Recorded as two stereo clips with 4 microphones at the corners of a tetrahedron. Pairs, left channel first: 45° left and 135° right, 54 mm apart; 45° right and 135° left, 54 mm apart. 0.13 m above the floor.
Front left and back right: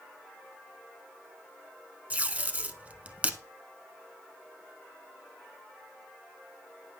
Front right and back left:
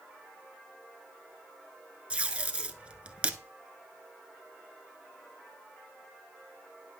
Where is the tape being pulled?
175° right, 0.6 m.